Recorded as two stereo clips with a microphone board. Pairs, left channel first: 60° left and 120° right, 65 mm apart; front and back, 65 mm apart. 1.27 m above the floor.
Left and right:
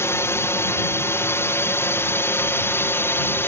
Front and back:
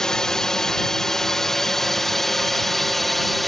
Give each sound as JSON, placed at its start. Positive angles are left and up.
{"t": 0.0, "sound": "a drone", "azimuth_deg": 75}